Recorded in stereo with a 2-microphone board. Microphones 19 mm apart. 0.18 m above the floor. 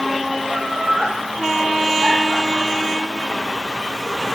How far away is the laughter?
About 6 m.